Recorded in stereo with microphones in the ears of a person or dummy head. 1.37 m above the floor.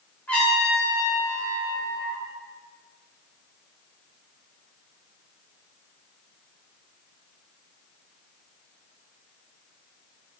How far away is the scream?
No scream in this recording.